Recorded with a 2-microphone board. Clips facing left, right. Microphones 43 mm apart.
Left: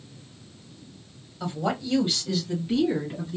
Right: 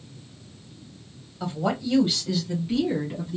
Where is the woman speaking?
5° right (ahead or behind), 1.1 m.